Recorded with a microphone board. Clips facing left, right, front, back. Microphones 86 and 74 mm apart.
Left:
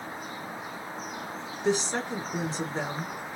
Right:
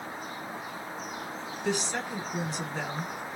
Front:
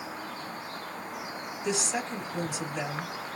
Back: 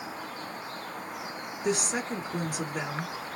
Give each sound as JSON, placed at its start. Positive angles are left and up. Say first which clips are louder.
{"t": 1.6, "sound": "a woman speaking", "louder": "left 4 dB, back 2 dB", "azimuth_deg": 150, "distance_m": 2.0}